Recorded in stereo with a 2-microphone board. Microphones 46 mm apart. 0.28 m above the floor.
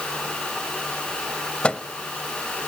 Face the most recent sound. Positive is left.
turn(degrees=25)  # may be behind; listen again after turning